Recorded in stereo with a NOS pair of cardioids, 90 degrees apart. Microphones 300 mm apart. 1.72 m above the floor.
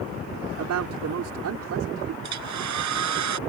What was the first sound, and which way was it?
A man speaking, 65° right.